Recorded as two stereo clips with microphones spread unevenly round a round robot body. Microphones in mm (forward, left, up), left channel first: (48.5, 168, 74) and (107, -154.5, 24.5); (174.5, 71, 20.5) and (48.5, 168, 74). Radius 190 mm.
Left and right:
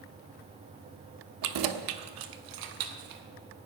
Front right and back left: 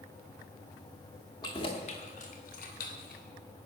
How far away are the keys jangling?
About 0.9 m.